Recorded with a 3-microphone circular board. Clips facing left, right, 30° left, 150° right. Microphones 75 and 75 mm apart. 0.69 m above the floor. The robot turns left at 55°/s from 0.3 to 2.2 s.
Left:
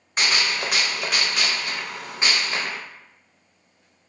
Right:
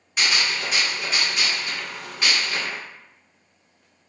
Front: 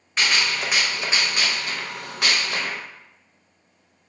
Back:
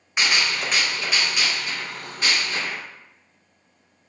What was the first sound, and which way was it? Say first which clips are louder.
A gunshot: left 1 dB, even; 135° left.